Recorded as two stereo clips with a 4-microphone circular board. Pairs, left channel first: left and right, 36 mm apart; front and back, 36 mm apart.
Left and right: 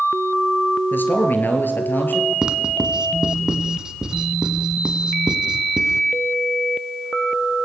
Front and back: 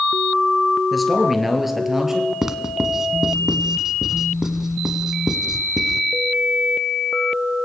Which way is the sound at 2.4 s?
115° right.